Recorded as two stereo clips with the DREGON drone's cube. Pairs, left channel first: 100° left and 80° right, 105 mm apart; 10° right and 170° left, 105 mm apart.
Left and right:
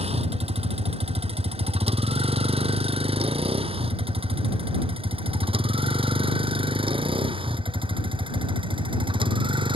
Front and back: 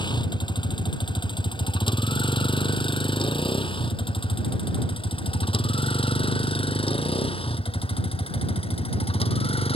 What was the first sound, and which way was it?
A vehicle, 55° right.